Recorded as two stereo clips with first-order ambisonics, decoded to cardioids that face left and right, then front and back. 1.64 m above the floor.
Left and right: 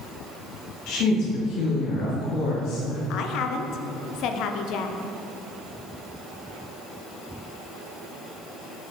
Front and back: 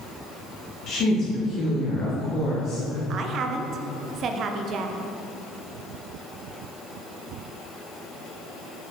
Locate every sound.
0.9 s a woman speaking: 55° left, 1.4 m
3.1 s a woman speaking: 130° left, 0.5 m